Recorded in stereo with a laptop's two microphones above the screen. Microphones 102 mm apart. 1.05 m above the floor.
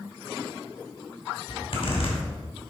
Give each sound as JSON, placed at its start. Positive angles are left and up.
{"t": 1.5, "sound": "a zipper", "side_deg": 60, "distance_m": 2.5}